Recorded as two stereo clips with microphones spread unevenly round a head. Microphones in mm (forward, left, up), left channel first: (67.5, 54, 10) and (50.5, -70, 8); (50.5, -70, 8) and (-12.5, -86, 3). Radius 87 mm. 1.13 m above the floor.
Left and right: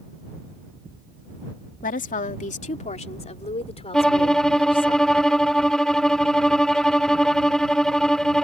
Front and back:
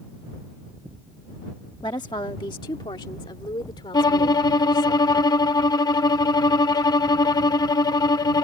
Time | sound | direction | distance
1.8 | a woman speaking | 70° left | ?
3.9 | a violin | 5° right | ?